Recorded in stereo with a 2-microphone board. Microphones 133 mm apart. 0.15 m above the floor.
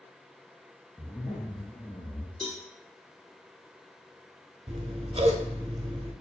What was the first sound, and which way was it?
A zipper, 5° left (ahead or behind).